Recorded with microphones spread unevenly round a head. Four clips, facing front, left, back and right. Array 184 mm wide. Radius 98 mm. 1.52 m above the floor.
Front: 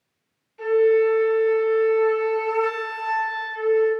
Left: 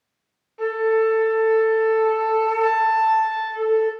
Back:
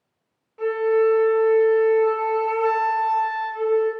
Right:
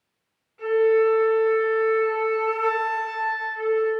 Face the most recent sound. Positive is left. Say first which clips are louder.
# right 1 dB, front 2 dB
turn(degrees=115)